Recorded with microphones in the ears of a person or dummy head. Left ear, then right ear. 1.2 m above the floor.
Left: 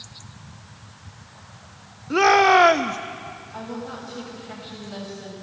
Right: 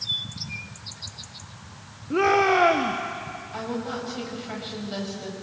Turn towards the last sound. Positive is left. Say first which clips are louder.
# right 4 dB
turn(degrees=-20)  # may be behind; listen again after turning